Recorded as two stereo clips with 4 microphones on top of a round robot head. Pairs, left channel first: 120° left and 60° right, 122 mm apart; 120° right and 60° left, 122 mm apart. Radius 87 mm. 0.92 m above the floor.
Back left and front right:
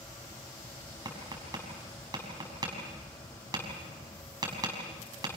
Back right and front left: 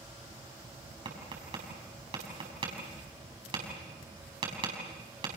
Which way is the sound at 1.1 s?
5° left.